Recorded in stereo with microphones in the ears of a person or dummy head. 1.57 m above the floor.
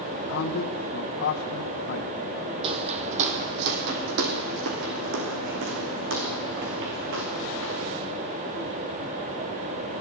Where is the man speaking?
50° left (ahead or behind), 2.0 m.